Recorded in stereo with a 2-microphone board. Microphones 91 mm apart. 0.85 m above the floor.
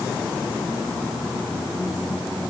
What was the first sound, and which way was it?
Only background noise.